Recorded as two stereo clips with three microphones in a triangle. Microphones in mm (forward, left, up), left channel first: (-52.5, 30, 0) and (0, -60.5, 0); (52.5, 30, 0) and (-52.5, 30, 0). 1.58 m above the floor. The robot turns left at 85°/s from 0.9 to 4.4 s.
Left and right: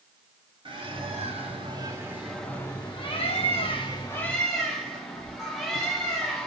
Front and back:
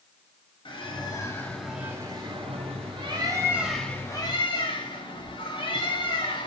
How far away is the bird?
About 1.0 m.